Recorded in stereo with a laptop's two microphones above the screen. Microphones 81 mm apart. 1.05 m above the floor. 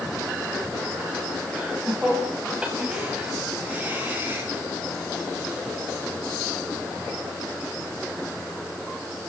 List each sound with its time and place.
1.5 s laughter: 5° right (ahead or behind), 9 m; by 4.5 s 25° right (ahead or behind), 8 m